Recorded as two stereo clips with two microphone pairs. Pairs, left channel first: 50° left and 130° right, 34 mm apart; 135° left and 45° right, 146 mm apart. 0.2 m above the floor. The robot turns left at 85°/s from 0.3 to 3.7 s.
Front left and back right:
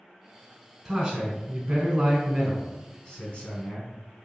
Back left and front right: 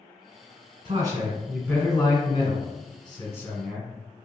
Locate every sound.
0.8 s a man speaking: 75° right, 1.5 m; by 3.9 s 45° left, 1.5 m